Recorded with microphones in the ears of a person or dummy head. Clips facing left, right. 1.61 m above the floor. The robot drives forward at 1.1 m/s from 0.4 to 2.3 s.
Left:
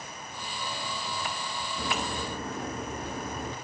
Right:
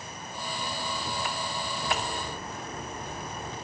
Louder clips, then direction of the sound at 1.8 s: Left 1 dB; 45° left (ahead or behind).